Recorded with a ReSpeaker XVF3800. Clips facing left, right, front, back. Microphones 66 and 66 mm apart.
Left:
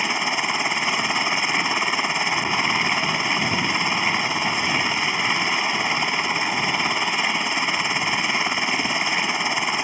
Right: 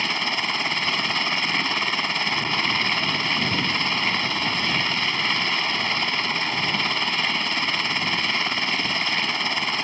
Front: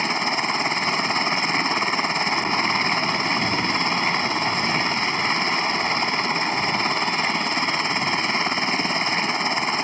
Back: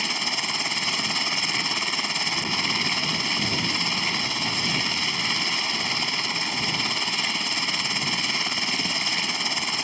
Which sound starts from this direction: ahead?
A helicopter, at 0.0 s.